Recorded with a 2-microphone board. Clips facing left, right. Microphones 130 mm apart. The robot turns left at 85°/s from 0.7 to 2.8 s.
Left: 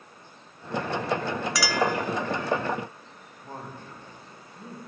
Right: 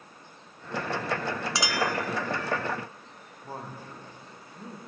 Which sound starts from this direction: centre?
A man speaking, at 3.4 s.